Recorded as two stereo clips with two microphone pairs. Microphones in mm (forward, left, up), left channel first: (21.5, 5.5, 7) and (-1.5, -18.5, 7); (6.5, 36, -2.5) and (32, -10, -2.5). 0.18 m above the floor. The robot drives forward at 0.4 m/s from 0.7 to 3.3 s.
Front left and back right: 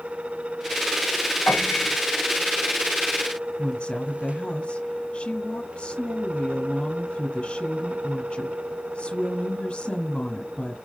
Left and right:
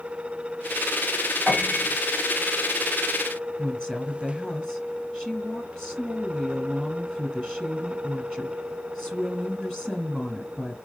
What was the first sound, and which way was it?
A piano, 40° left.